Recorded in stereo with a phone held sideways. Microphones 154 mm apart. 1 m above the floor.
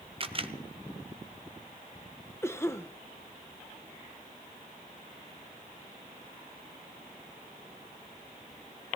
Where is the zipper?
I don't hear a zipper.